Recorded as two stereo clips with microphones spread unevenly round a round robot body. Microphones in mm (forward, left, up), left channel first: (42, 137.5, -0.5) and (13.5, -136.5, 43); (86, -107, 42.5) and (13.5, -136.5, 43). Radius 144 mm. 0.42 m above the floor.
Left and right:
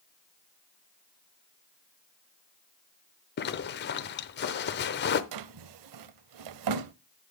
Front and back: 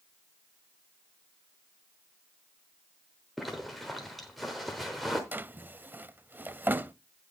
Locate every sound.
3.4 s a zipper: 110° left, 0.8 m
5.3 s a drawer: 90° right, 0.5 m